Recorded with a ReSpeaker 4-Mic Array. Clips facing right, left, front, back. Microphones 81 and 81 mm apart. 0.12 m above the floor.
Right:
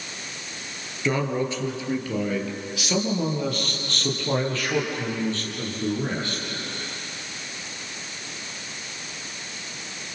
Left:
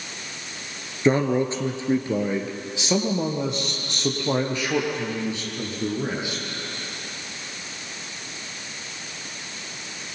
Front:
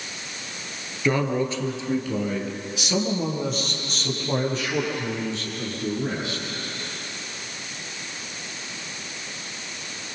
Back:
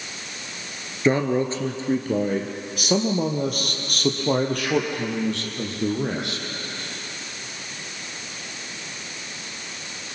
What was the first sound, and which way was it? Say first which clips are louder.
A man speaking: left 5 dB, back 3 dB; 130° left.